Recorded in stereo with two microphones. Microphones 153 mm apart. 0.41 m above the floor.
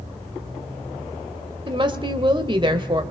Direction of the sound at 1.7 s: 35° right (ahead or behind).